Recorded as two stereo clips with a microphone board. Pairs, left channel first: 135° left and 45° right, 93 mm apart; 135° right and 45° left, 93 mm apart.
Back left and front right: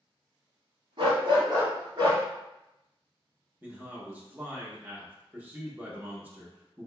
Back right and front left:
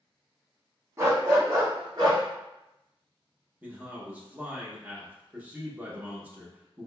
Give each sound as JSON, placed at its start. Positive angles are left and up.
{"t": 1.0, "sound": "a dog barking", "azimuth_deg": -15, "distance_m": 1.0}
{"t": 3.6, "sound": "a man speaking", "azimuth_deg": 0, "distance_m": 0.7}